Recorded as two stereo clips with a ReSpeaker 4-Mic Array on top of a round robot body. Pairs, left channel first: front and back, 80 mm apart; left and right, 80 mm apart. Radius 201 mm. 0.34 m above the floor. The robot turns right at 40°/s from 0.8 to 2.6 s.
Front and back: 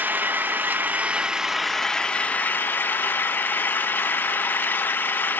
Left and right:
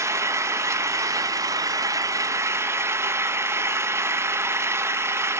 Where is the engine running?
125° right, 0.9 m; by 5.4 s 50° right, 0.9 m.